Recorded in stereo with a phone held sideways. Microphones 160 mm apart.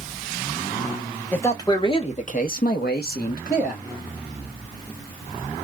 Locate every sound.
1.3 s a man speaking: 15° left (ahead or behind), 1.1 m; by 3.9 s 60° left (ahead or behind), 1.4 m